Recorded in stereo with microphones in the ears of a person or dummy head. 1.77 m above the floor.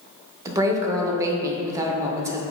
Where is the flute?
I don't hear a flute.